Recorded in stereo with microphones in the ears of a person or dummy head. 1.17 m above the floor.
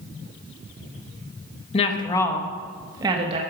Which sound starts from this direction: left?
A woman speaking, at 1.7 s.